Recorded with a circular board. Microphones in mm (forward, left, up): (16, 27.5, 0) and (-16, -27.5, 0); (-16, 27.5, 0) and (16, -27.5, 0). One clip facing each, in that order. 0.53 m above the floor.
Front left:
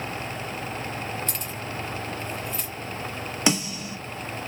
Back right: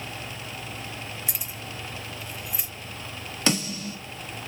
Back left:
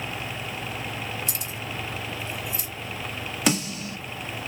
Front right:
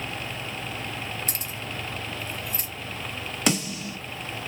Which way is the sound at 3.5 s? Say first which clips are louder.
Front left 1 dB, back left 1 dB; 30° left.